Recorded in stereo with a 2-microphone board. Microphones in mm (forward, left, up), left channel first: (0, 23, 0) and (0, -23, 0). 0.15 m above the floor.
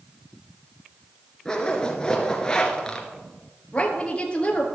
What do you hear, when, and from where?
1.4 s a zipper: 15° left (ahead or behind), 2 m
3.7 s a woman speaking: 25° left (ahead or behind), 3 m